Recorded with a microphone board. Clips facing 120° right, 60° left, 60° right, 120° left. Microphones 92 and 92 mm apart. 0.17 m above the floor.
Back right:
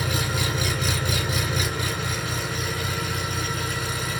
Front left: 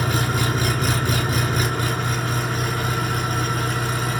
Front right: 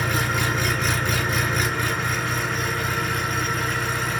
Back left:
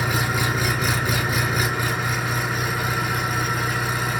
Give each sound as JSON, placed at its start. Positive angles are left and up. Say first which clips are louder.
{"t": 0.0, "sound": "an engine running", "louder": "front left 4 dB, back left 1 dB", "azimuth_deg": 35, "distance_m": 0.9}